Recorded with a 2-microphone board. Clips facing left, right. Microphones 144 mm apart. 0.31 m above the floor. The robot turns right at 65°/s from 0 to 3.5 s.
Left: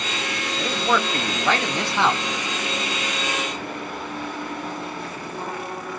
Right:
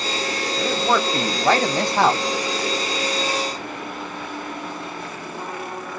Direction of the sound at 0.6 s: 175° left.